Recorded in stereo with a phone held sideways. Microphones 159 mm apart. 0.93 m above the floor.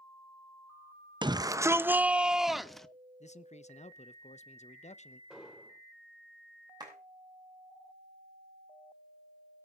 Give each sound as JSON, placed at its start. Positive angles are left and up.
{"t": 1.2, "sound": "a shout", "side_deg": -30, "distance_m": 0.7}
{"t": 3.2, "sound": "a man speaking", "side_deg": 45, "distance_m": 0.7}
{"t": 5.3, "sound": "an explosion", "side_deg": -5, "distance_m": 4.0}
{"t": 6.8, "sound": "a clap", "side_deg": -25, "distance_m": 6.5}